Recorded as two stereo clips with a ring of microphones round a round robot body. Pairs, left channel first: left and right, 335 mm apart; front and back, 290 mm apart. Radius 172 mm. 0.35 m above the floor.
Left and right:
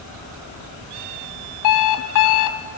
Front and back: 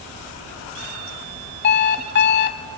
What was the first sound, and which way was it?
An alarm clock, 55° left.